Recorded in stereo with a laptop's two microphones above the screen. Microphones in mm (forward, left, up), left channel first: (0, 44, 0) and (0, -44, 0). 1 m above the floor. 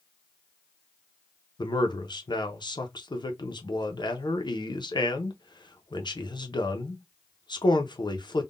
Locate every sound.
1.6 s a man speaking: 55° left (ahead or behind), 0.6 m